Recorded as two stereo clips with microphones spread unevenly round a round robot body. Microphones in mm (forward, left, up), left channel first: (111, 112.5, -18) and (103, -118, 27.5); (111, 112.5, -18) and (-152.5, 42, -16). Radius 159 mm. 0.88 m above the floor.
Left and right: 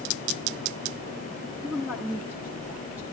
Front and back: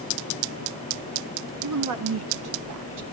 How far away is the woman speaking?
About 1.2 m.